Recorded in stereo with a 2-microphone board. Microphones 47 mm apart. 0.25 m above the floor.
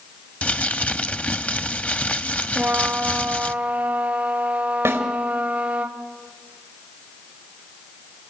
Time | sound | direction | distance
0.4 | crumpling | 30° left (ahead or behind) | 0.7 m
2.5 | a trumpet | 25° right (ahead or behind) | 4 m
4.8 | a snare drum | 60° right (ahead or behind) | 4.5 m